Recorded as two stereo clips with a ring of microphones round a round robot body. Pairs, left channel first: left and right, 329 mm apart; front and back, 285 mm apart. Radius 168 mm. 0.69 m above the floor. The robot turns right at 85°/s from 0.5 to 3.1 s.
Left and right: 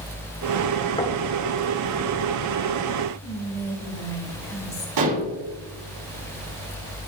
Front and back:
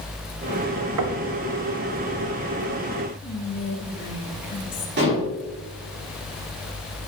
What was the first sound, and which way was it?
Knocking, 165° left.